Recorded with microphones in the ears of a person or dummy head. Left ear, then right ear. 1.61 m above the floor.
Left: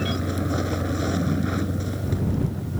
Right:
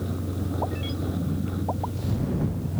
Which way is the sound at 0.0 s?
70° left (ahead or behind).